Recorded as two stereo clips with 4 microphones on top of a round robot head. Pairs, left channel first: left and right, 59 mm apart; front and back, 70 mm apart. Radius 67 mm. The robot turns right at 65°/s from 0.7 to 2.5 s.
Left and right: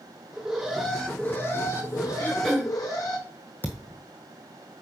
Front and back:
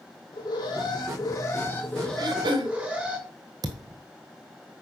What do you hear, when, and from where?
0.3 s an alarm: 10° right, 3 m; by 3.2 s 110° left, 3 m
2.2 s throat clearing: 155° left, 1.5 m; by 2.8 s 175° left, 1.5 m
3.6 s a thud: 155° left, 1.4 m